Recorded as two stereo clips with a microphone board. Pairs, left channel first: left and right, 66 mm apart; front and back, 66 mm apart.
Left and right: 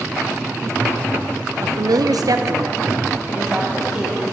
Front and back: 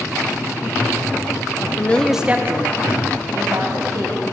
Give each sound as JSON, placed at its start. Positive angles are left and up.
{"t": 1.6, "sound": "a woman speaking", "azimuth_deg": -50, "distance_m": 0.6}